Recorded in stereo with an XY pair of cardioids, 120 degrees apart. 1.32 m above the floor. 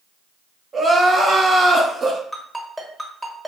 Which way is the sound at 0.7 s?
30° right.